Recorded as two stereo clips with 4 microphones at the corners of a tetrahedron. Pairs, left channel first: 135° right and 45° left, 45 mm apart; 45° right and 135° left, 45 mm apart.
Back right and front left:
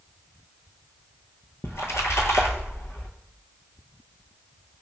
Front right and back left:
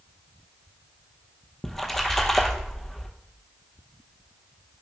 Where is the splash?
130° right, 0.6 m.